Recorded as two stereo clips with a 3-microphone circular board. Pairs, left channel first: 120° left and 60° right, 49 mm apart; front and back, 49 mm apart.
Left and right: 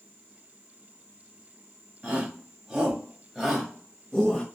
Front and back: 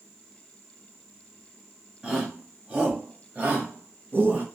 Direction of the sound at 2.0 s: 120° right.